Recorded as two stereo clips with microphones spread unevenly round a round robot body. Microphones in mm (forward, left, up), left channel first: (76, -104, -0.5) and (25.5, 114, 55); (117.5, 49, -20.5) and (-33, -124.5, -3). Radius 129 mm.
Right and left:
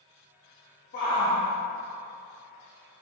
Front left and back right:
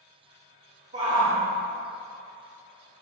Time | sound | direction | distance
0.9 | a shout | 75° right | 2.5 m